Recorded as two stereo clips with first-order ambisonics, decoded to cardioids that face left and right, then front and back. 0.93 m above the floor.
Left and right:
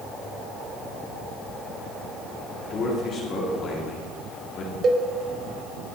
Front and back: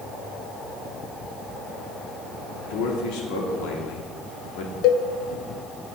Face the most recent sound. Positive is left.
turn(degrees=-30)